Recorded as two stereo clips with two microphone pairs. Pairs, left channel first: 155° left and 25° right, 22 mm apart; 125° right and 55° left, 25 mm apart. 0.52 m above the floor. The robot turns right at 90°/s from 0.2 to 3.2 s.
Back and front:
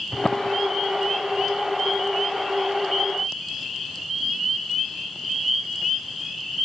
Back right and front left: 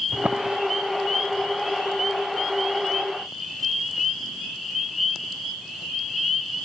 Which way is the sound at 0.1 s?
75° left.